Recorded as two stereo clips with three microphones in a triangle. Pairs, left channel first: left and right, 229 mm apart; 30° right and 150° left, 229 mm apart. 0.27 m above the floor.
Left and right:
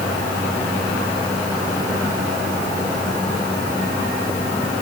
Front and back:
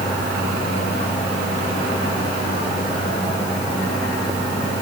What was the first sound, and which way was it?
Only background noise.